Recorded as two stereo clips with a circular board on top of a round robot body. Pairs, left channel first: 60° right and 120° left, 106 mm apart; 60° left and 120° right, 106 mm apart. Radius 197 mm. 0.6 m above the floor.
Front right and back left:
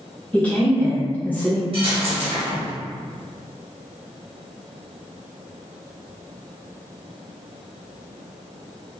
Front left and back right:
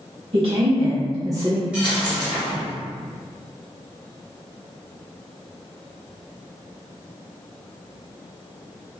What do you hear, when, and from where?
0.3 s a woman speaking: 135° right, 1.6 m; by 1.6 s 115° right, 1.2 m
1.7 s a dropped coin: 160° left, 0.6 m